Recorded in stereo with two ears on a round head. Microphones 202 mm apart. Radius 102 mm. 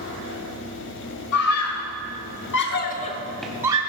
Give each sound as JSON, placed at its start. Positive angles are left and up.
{"t": 1.3, "sound": "a scream", "side_deg": 70, "distance_m": 2.0}